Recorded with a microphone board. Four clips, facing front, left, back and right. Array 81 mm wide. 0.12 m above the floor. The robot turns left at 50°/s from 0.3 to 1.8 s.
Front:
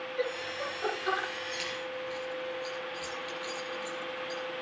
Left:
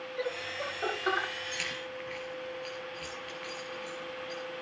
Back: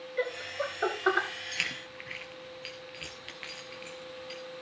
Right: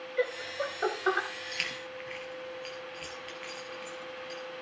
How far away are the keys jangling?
About 1.6 m.